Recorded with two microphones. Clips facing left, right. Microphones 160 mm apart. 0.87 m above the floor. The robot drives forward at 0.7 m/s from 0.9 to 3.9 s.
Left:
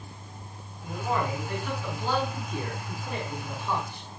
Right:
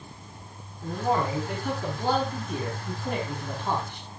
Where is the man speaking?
55° right (ahead or behind), 7 m; by 4.1 s 75° right (ahead or behind), 6 m.